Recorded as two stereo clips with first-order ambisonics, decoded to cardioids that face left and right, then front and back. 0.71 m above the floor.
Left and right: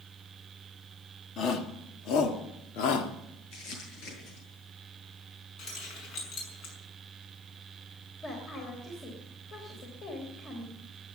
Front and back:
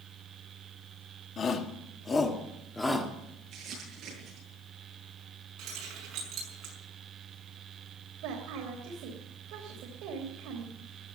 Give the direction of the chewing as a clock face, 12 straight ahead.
I don't hear chewing.